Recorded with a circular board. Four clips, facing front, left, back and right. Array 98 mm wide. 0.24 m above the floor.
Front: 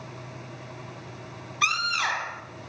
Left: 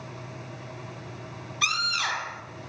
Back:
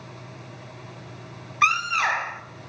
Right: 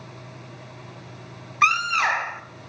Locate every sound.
1.6 s a scream: 115° right, 1.1 m